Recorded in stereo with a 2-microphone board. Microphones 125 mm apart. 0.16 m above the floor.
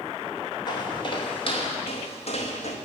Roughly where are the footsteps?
Left.